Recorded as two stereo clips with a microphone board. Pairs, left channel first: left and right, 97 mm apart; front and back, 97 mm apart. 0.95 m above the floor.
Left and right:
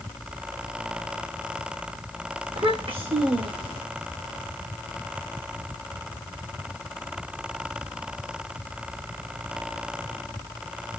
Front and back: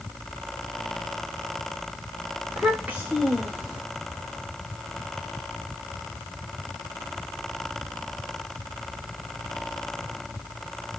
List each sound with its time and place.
2.5 s a child speaking: 100° right, 3 m